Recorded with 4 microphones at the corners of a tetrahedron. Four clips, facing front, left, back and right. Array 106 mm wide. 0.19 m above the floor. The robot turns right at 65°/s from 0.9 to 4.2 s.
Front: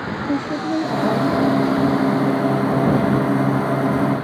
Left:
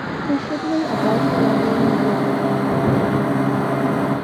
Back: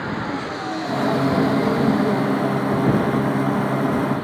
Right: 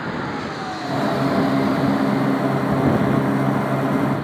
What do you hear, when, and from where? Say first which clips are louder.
0.3 s a woman speaking: left 6 dB, front 5 dB; 60° left; by 2.7 s 175° left